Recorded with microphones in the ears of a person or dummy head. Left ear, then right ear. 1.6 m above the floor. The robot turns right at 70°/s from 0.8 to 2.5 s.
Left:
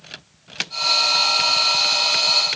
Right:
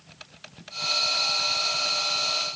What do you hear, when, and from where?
Only background noise.